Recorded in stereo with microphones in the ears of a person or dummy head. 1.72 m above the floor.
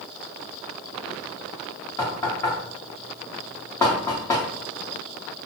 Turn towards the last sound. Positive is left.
turn(degrees=25)  # may be behind; listen again after turning